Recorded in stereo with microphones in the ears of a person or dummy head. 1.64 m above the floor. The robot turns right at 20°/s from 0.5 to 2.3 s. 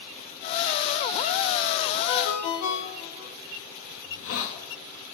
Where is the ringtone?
75° left (ahead or behind), 3 m; by 3.3 s 70° left (ahead or behind), 3 m.